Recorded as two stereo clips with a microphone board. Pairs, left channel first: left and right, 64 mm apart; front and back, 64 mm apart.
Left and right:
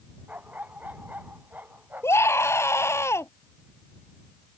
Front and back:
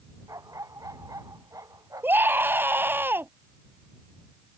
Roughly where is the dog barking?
Behind right.